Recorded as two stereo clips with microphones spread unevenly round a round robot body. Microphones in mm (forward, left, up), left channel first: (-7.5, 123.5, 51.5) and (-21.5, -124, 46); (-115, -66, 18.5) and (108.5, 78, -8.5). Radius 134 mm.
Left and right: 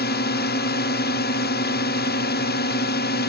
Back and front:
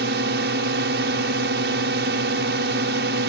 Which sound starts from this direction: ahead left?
A drone, at 0.0 s.